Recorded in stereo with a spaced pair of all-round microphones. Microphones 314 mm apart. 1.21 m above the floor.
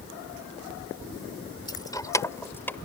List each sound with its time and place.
1.7 s keys jangling: 15° left (ahead or behind); by 2.8 s 5° left (ahead or behind)